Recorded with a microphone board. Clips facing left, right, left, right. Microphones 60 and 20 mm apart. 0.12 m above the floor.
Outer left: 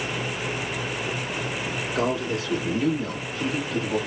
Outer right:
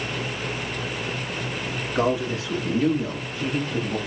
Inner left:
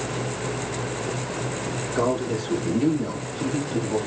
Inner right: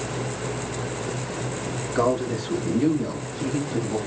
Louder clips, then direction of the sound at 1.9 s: Outer right 3 dB, inner right 1 dB; 20° right (ahead or behind).